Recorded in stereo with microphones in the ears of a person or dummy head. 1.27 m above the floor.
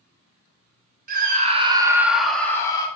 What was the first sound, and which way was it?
A scream, 45° right (ahead or behind).